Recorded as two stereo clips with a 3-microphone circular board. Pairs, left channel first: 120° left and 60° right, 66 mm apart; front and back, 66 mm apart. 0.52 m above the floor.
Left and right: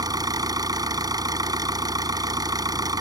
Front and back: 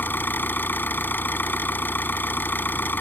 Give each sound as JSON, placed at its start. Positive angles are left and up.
{"t": 0.0, "sound": "an engine running", "azimuth_deg": -60}